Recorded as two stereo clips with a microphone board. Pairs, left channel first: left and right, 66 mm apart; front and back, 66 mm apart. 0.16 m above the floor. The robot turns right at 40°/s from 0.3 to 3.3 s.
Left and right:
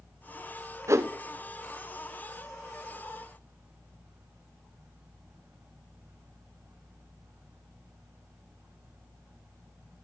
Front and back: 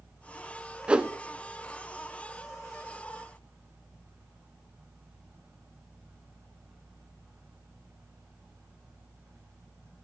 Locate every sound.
0.9 s a whoosh: 110° right, 0.6 m; by 1.1 s 100° right, 0.6 m